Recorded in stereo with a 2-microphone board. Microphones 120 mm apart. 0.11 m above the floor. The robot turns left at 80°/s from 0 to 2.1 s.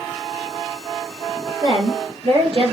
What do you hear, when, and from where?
1.6 s a woman speaking: 45° right, 2.5 m; by 2.7 s 85° right, 2.5 m